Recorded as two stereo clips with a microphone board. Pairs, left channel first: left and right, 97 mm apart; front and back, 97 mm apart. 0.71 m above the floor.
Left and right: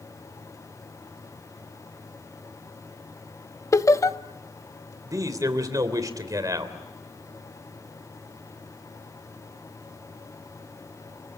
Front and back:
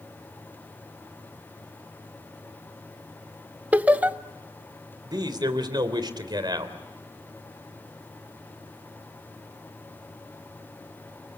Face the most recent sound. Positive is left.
turn(degrees=-140)